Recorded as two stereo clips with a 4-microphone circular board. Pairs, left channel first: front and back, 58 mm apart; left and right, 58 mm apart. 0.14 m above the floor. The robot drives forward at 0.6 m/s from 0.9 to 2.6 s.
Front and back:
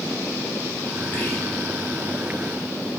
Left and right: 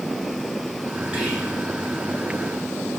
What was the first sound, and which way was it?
Whispering, 20° right.